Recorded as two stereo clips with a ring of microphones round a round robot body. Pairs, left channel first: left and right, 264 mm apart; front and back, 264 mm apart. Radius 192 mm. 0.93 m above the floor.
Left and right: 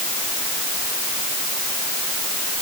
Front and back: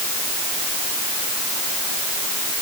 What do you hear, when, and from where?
Only background noise.